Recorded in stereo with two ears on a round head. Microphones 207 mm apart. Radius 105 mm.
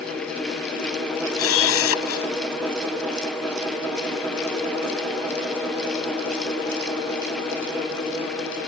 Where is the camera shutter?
70° left (ahead or behind).